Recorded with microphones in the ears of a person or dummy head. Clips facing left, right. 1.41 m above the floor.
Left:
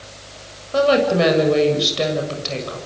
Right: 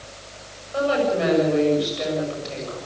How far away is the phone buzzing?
No phone buzzing in this recording.